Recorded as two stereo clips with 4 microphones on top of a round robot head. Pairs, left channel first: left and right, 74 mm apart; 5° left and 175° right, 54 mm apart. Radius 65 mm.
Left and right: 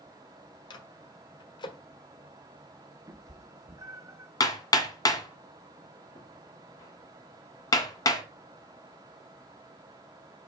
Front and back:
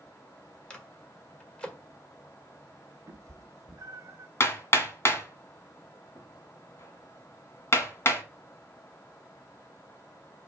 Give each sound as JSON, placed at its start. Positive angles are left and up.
{"t": 0.7, "sound": "a microwave", "azimuth_deg": 75, "distance_m": 1.5}
{"t": 3.1, "sound": "a cat meowing", "azimuth_deg": -140, "distance_m": 0.6}
{"t": 4.4, "sound": "hammering", "azimuth_deg": 50, "distance_m": 1.5}